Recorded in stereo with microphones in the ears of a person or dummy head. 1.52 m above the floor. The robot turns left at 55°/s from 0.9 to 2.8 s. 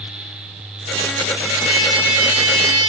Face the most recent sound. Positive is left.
turn(degrees=165)